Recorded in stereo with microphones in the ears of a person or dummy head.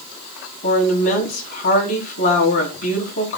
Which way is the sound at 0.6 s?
55° left (ahead or behind).